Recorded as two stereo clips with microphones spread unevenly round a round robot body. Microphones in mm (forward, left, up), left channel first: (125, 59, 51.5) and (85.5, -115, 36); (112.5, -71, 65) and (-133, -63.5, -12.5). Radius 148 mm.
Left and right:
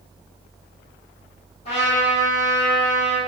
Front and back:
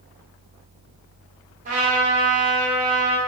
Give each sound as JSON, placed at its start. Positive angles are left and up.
{"t": 1.6, "sound": "a trumpet", "azimuth_deg": 135, "distance_m": 0.9}